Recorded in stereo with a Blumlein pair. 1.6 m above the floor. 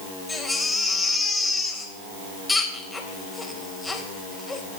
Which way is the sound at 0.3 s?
10° left.